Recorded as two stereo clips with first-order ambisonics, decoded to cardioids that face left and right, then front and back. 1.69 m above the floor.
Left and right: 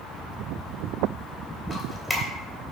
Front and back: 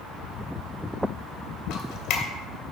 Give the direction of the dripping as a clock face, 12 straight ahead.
12 o'clock.